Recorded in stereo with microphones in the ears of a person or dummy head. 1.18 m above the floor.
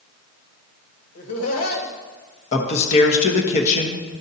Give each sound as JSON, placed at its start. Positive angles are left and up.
{"t": 1.1, "sound": "laughter", "side_deg": 80, "distance_m": 2.0}
{"t": 2.5, "sound": "a man speaking", "side_deg": 40, "distance_m": 1.1}